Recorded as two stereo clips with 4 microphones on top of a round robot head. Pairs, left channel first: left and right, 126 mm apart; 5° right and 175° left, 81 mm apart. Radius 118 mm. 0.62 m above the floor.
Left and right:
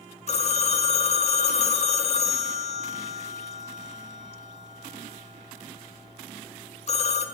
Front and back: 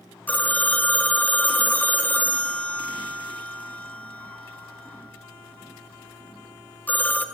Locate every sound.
0.3 s a phone ringing: 65° left, 0.6 m